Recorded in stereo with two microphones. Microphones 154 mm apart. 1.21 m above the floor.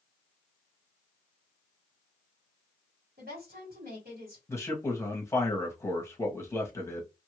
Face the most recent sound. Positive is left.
turn(degrees=20)  # may be behind; listen again after turning